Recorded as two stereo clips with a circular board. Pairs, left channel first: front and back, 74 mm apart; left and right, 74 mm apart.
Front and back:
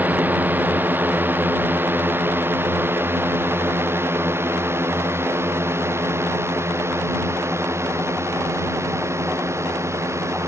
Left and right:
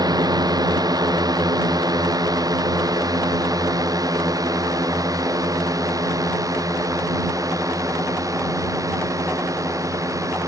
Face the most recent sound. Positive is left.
turn(degrees=-130)